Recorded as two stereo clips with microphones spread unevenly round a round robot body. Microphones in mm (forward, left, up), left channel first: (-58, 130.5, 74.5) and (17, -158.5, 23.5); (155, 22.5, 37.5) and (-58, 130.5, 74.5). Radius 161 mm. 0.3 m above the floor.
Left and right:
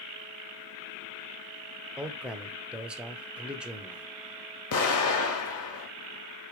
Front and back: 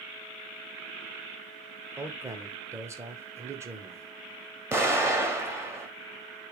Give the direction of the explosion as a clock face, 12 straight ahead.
10 o'clock.